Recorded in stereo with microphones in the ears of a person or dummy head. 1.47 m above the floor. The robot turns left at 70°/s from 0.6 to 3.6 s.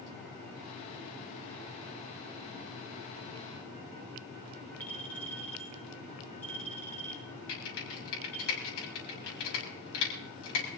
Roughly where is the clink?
Centre.